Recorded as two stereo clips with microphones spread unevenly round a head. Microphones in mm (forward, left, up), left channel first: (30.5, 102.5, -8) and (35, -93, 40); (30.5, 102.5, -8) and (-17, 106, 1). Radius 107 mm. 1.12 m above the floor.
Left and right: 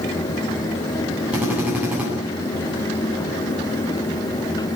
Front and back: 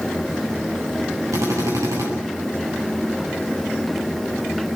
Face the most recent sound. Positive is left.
turn(degrees=-175)